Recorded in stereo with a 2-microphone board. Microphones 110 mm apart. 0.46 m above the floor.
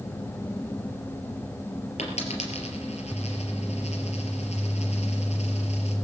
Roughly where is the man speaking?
No man speaking in this recording.